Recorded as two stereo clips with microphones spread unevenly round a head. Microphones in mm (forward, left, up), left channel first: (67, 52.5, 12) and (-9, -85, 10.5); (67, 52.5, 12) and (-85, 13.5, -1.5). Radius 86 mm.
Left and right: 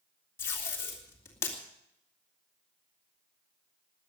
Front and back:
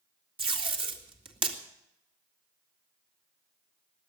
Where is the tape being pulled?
135° left, 2.5 m.